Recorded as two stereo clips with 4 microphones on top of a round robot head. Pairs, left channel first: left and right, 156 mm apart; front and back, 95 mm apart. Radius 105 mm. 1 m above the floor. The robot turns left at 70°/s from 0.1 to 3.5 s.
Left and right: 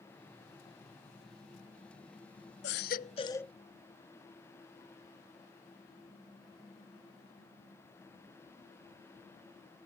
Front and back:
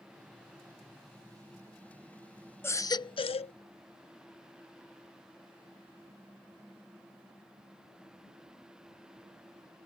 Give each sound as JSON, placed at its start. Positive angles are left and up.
{"t": 2.6, "sound": "a baby crying", "azimuth_deg": 65}